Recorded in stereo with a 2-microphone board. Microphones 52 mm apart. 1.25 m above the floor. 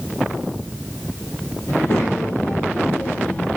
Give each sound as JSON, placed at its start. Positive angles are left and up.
{"t": 1.7, "sound": "a child speaking", "side_deg": 60, "distance_m": 3.5}